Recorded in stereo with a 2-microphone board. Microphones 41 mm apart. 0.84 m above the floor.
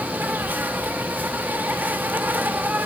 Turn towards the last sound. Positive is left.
turn(degrees=-55)  # may be behind; listen again after turning